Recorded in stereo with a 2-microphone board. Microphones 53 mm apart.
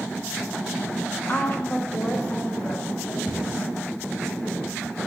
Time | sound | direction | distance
1.3 | a woman speaking | 35° left (ahead or behind) | 1.0 m
3.3 | a cupboard door | 55° left (ahead or behind) | 4 m